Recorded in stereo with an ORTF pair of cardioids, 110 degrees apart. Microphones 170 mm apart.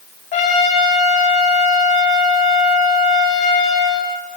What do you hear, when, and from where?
0.3 s a trumpet: 45° left, 8 m